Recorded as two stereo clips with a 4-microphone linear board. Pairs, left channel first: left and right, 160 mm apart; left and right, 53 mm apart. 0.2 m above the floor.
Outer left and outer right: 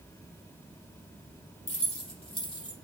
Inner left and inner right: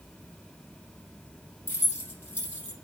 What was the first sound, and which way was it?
Keys jangling, 45° left (ahead or behind).